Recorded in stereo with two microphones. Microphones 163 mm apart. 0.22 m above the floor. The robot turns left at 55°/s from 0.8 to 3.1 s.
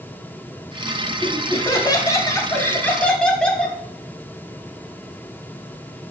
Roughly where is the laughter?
Centre.